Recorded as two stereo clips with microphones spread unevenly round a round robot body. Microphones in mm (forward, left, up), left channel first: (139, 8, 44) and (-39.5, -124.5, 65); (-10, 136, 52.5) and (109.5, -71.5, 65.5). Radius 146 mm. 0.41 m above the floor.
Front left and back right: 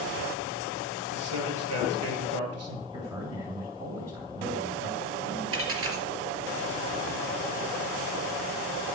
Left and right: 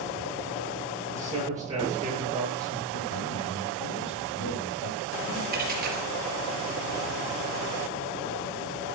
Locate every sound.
1.1 s a man speaking: 140° right, 7 m
2.9 s a man speaking: 140° left, 2.5 m
5.5 s a dropped coin: 120° right, 4 m